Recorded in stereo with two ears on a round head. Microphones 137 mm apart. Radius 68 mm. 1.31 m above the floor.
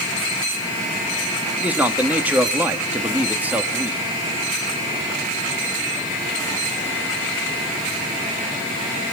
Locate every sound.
1.6 s a man speaking: 10° right (ahead or behind), 2.0 m